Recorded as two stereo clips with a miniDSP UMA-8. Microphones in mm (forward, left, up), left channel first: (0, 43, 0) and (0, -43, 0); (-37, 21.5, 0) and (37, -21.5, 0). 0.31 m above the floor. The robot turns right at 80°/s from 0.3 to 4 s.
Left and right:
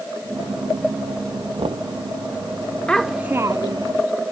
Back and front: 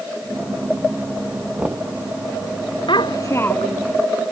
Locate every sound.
1.6 s knocking: 110° right; by 1.9 s 85° right
2.9 s a child speaking: 170° left; by 3.9 s 110° right